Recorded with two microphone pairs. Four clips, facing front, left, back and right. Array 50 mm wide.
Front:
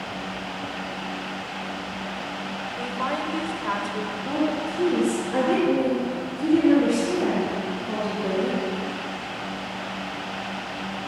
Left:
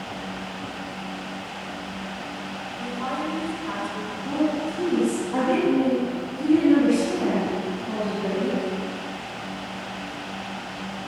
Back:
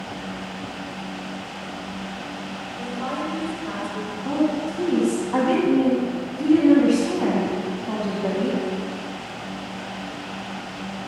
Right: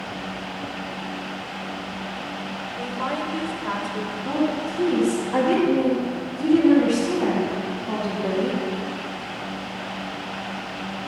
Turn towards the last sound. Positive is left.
turn(degrees=-160)